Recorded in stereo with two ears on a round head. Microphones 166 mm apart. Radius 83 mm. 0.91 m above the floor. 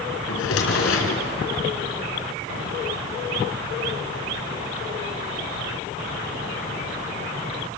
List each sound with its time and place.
0.3 s a drawer: 85° left, 4 m